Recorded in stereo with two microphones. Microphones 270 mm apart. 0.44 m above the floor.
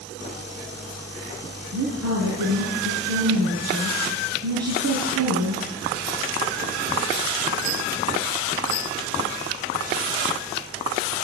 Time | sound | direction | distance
1.7 | a woman speaking | 70° right (ahead or behind) | 6 m